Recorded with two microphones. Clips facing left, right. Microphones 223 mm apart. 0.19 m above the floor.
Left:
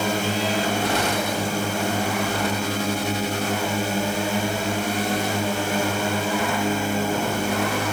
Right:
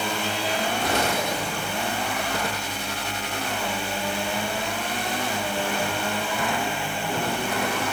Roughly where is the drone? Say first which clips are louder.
Left 5 dB; left.